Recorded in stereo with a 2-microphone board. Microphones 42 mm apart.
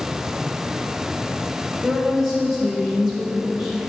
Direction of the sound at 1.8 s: 10° right (ahead or behind).